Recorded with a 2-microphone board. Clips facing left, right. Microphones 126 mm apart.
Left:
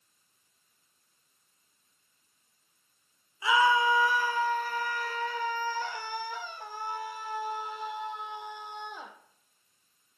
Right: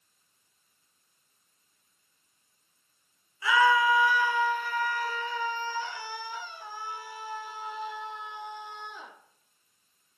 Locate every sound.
3.4 s a scream: 25° left (ahead or behind), 1.1 m; by 9.1 s 55° left (ahead or behind), 3.5 m